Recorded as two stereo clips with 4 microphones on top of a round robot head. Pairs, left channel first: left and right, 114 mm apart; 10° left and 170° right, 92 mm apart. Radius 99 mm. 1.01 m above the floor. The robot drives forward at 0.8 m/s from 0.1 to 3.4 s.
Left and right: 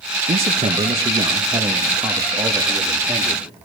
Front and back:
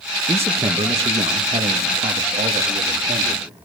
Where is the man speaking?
110° right, 1.4 m; by 3.4 s 160° right, 3 m.